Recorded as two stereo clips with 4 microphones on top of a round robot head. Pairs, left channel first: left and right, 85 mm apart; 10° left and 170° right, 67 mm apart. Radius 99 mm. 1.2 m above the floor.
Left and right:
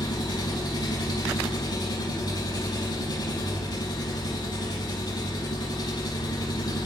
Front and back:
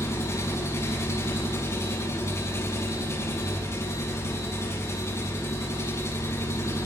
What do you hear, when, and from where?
0.0 s an engine running: 55° left, 7.5 m